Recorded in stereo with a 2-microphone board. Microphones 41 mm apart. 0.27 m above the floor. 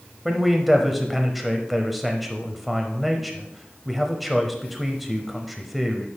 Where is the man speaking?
Centre (ahead or behind), 0.9 m.